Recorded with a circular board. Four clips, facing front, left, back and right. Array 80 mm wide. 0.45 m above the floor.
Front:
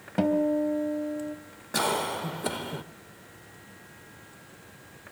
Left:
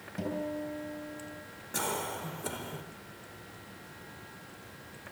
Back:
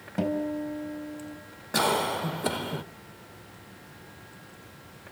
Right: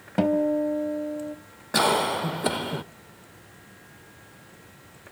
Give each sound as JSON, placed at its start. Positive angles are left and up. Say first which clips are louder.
{"t": 0.2, "sound": "a guitar", "louder": "right 13 dB, front 5 dB", "azimuth_deg": -70, "distance_m": 3.0}
{"t": 1.7, "sound": "a cough", "louder": "right 13 dB, back 2 dB", "azimuth_deg": -100, "distance_m": 1.0}